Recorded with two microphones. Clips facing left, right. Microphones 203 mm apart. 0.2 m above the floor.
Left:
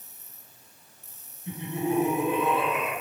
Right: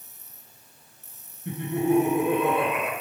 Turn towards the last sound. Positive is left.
turn(degrees=-60)  # may be behind; listen again after turning